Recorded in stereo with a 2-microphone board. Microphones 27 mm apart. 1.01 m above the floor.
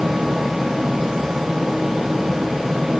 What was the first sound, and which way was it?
Only background noise.